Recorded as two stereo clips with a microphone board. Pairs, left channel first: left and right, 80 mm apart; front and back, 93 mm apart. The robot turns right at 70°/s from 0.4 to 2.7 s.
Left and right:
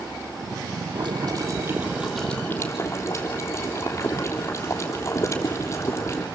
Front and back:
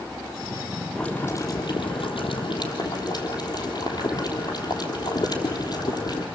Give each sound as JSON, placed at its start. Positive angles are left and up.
{"t": 0.9, "sound": "boiling", "azimuth_deg": -85, "distance_m": 3.5}